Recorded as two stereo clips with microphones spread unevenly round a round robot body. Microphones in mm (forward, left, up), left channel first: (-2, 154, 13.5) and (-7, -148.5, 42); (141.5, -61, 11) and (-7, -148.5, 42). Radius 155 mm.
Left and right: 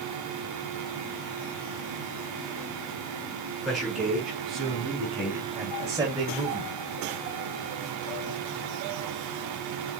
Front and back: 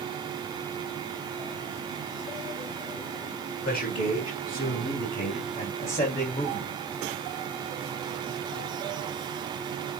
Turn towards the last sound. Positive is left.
turn(degrees=-20)